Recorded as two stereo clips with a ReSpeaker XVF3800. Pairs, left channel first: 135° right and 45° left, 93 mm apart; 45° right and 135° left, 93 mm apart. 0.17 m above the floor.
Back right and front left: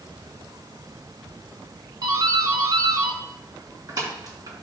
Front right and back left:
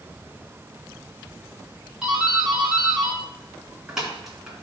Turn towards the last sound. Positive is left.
turn(degrees=55)